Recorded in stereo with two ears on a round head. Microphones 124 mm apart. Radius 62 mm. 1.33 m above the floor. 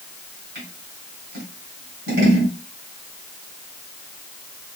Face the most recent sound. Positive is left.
turn(degrees=-85)